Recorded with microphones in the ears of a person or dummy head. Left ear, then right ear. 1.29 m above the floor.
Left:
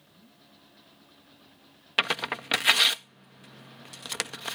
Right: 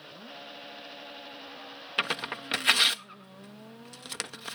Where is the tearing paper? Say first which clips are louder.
Left 4 dB; 20° left (ahead or behind).